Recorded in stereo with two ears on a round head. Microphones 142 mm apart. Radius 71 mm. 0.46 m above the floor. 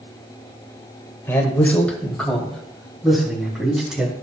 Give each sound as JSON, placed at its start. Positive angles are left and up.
{"t": 1.3, "sound": "a man speaking", "side_deg": 15, "distance_m": 1.8}